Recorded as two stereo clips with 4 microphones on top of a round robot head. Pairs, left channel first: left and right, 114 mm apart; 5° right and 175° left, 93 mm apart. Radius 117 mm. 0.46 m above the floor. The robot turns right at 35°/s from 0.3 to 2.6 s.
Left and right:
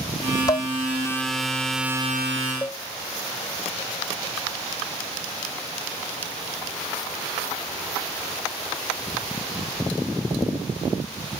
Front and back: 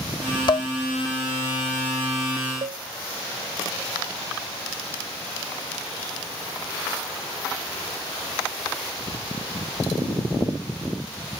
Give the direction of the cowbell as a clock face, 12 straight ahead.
7 o'clock.